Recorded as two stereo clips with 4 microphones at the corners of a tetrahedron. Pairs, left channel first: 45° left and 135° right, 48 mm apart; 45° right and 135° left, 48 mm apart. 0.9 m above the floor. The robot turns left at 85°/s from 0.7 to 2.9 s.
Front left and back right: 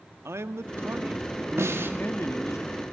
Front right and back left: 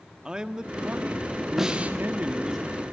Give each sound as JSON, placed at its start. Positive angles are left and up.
{"t": 0.2, "sound": "a man speaking", "azimuth_deg": -150, "distance_m": 1.5}
{"t": 1.6, "sound": "a snare drum", "azimuth_deg": -145, "distance_m": 2.0}